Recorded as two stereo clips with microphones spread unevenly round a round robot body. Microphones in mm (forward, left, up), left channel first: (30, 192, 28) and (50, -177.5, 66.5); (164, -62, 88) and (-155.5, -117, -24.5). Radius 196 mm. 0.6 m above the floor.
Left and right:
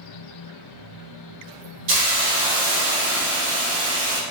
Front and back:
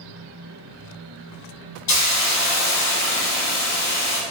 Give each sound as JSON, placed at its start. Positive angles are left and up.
{"t": 1.9, "sound": "a hiss", "azimuth_deg": -35, "distance_m": 0.8}